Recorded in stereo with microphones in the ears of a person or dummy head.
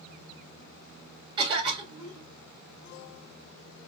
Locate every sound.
1.4 s a cough: 25° right (ahead or behind), 1.4 m